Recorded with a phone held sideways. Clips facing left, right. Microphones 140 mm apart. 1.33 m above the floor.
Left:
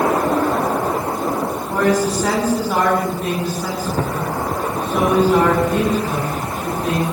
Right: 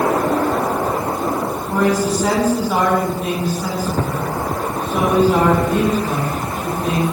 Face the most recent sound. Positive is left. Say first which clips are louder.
# even
turn(degrees=-5)  # may be behind; listen again after turning